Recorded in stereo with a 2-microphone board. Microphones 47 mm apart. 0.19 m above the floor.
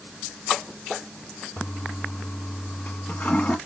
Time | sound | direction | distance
1.6 | a toilet flushing | 35° left (ahead or behind) | 0.8 m